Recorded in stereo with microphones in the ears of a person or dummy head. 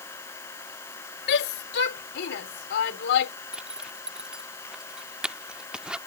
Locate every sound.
0.0 s an engine running: 15° left (ahead or behind)
1.3 s a shout: 65° left (ahead or behind)
3.5 s a zipper: centre (ahead or behind)